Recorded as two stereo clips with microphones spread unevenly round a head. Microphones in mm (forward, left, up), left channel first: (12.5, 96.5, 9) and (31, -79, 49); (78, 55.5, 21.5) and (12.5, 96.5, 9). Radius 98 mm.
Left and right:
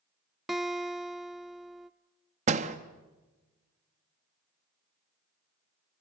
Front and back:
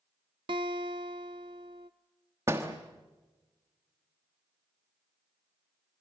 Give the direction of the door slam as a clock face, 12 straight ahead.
5 o'clock.